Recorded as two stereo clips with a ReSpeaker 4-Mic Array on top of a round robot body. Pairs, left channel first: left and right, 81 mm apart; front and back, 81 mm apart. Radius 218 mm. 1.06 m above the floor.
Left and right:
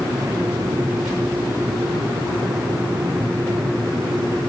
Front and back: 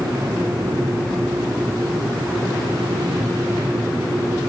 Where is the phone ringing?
I don't hear a phone ringing.